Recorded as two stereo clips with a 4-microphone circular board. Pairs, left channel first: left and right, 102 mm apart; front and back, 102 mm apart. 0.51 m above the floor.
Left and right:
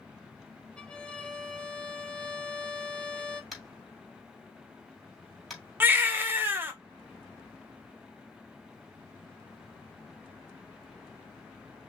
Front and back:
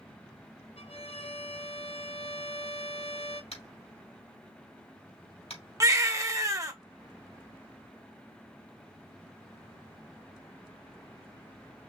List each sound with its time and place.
0.8 s a violin: 10° left, 0.8 m
3.5 s tapping: straight ahead, 3 m
5.8 s a baby crying: 145° right, 0.9 m